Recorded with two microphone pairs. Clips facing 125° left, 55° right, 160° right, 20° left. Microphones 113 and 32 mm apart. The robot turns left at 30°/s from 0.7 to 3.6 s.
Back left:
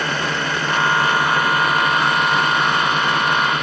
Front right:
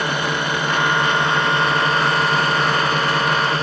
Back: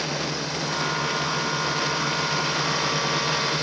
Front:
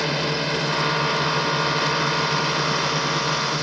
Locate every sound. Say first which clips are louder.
0.0 s a drone: front right 1 dB, front 5 dB; 10° left; by 3.6 s 75° right